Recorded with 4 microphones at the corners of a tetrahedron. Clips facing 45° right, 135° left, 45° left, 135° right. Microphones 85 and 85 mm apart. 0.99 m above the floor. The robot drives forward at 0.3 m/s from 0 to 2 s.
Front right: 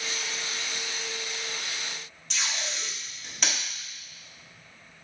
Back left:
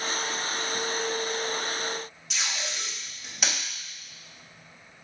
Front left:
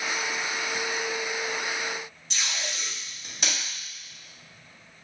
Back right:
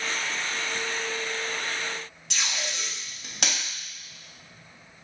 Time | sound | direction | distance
2.3 | tape being pulled | 140° right | 1.5 m